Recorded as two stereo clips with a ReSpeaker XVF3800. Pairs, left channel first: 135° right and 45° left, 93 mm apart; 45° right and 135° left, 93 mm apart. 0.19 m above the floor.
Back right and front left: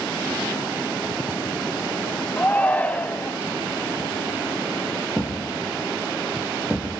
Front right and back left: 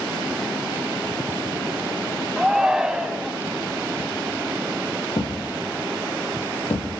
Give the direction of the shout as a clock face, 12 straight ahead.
5 o'clock.